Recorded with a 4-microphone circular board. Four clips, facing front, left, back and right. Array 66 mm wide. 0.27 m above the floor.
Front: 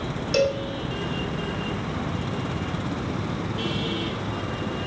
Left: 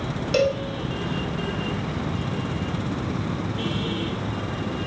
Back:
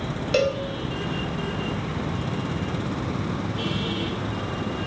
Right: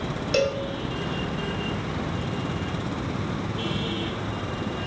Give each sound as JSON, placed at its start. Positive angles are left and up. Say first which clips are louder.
{"t": 0.3, "sound": "a cowbell", "louder": "left 3 dB, even", "azimuth_deg": 170, "distance_m": 0.6}